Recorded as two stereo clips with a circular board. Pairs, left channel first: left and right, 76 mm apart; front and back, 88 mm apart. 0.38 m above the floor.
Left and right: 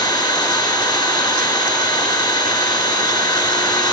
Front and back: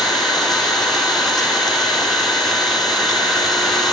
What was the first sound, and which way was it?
An engine running, 90° left.